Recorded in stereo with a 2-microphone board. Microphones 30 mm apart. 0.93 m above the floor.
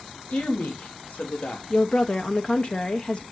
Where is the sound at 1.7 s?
40° left (ahead or behind), 0.6 m.